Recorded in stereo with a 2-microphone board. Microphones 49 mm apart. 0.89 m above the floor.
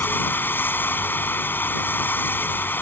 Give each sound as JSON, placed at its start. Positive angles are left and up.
{"t": 0.0, "sound": "running water", "side_deg": 50}